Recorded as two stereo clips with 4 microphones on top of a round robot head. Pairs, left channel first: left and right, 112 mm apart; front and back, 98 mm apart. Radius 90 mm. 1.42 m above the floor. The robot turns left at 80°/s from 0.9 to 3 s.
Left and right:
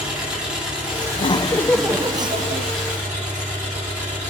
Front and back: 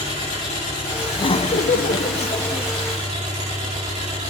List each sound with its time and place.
0.0 s an engine running: 10° right, 9 m; by 4.3 s 175° right, 9 m
1.1 s laughter: 55° left, 0.9 m; by 2.7 s 70° right, 0.9 m